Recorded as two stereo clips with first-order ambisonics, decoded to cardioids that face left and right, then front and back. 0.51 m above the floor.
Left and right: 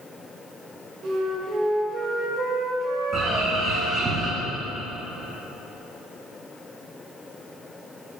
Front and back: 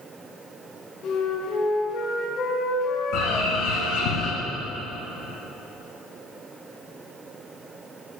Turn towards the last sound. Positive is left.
turn(degrees=-25)